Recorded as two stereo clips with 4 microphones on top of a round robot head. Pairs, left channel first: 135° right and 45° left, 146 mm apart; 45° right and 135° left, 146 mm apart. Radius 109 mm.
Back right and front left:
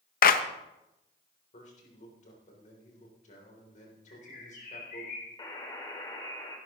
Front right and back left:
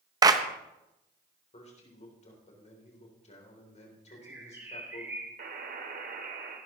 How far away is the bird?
About 3.5 m.